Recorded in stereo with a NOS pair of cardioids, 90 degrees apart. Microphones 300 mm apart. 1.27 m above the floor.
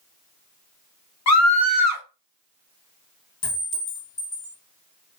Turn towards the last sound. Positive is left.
turn(degrees=60)